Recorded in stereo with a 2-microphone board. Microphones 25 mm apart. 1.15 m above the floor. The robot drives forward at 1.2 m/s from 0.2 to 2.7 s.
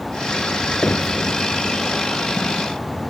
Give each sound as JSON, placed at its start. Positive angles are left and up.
{"t": 0.8, "sound": "knocking", "side_deg": 80}